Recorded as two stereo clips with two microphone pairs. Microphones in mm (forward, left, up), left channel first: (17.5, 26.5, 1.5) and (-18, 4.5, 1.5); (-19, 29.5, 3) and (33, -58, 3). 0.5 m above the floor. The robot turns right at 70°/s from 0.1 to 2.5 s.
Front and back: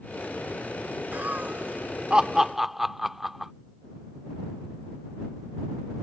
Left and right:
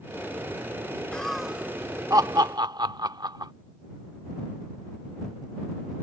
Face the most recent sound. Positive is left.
turn(degrees=-65)